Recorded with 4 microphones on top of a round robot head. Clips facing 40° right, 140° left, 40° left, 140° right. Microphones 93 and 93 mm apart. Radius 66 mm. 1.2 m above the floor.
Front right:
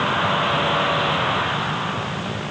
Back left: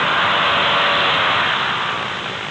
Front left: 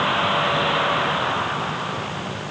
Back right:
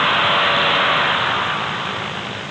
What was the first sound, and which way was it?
Only background noise.